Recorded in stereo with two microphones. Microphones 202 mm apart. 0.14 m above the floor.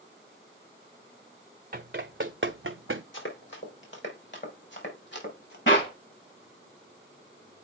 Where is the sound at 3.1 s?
70° left (ahead or behind), 3.5 m; by 5.6 s 60° left (ahead or behind), 4.5 m.